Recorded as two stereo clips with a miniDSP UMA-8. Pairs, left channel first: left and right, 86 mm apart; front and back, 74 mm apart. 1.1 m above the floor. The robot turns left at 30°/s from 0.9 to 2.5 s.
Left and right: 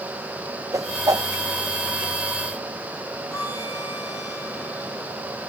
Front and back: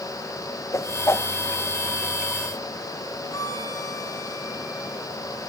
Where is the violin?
40° left, 6.5 m.